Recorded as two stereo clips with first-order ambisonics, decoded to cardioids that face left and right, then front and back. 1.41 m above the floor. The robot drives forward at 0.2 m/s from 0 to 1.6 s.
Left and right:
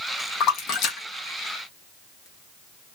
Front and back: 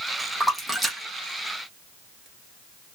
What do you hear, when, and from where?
0.4 s a splash: 90° left, 0.8 m; by 2.3 s 115° left, 0.8 m